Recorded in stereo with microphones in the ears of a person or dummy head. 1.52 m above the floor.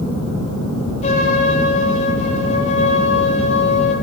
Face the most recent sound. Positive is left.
turn(degrees=45)  # may be behind; listen again after turning